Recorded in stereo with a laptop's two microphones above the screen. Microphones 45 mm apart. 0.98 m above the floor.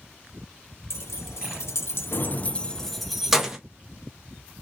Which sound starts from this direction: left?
Keys jangling, at 0.9 s.